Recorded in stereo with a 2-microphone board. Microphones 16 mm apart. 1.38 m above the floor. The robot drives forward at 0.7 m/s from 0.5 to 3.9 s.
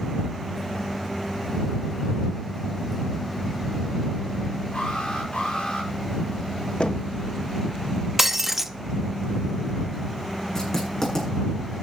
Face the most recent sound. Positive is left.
turn(degrees=30)  # may be behind; listen again after turning